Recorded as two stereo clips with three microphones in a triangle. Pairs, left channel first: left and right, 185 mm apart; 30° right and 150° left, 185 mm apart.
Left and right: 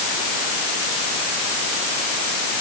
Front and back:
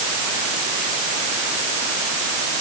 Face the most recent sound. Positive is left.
No sound to turn to.